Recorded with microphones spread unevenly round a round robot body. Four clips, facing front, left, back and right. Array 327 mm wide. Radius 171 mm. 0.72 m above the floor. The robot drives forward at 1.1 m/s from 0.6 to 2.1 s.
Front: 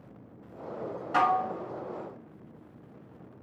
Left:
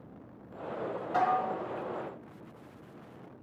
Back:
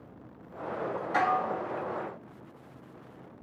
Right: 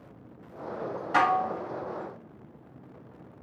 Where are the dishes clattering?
65° right, 0.5 m; by 1.5 s 115° right, 0.5 m.